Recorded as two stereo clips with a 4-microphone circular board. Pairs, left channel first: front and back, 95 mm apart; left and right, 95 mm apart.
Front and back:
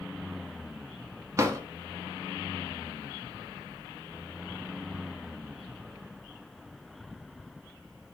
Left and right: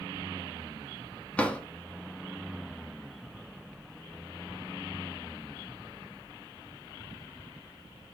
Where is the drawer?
155° left, 0.7 m.